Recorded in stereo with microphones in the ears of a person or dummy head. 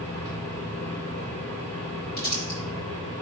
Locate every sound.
0.0 s a fan: 35° left (ahead or behind), 2.5 m
2.2 s crumpling: 50° left (ahead or behind), 4 m